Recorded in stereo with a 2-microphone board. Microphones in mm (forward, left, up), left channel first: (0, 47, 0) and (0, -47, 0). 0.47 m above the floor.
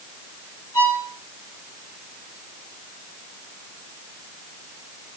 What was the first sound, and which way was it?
A violin, 30° left (ahead or behind).